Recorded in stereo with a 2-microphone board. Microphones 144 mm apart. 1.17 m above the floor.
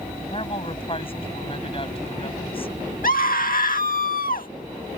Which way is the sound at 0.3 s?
40° left (ahead or behind).